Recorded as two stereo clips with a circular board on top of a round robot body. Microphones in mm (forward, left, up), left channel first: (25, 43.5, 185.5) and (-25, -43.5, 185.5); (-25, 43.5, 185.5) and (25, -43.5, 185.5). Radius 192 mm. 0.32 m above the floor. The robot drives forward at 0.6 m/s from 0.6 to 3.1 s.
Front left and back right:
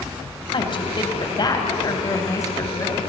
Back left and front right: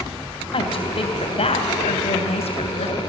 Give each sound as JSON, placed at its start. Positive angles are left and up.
{"t": 0.5, "sound": "a woman speaking", "azimuth_deg": 90, "distance_m": 3.0}